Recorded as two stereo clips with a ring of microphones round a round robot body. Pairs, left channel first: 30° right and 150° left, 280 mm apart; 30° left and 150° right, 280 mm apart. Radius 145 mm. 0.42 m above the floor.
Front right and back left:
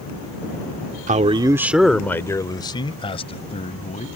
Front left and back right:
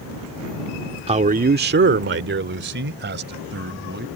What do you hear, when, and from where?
1.1 s a man speaking: 170° left; by 4.1 s 95° right